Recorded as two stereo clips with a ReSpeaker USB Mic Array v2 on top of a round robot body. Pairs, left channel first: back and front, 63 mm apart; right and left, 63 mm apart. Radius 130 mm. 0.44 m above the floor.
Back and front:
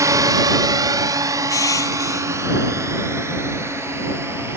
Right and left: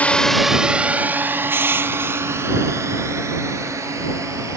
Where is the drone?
25° right; by 4.6 s 50° left.